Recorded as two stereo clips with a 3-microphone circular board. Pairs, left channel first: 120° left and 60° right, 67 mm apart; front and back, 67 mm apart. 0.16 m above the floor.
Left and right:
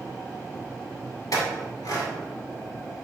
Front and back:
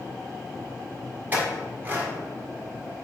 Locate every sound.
1.3 s a clink: 120° left, 1.6 m